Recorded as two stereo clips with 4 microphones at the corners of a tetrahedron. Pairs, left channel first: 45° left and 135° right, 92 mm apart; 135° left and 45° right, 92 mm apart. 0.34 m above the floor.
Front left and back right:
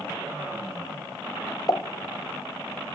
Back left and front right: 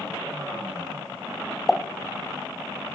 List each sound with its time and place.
1.7 s a pop: 50° left, 0.9 m